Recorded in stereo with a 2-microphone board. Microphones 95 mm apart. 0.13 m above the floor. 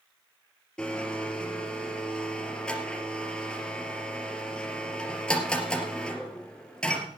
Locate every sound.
0.8 s a blender: 10° left (ahead or behind), 2.5 m